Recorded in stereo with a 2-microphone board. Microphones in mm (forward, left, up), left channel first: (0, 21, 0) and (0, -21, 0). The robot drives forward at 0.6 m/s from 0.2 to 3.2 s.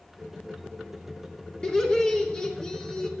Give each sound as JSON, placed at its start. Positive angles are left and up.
{"t": 1.6, "sound": "laughter", "side_deg": 20, "distance_m": 1.4}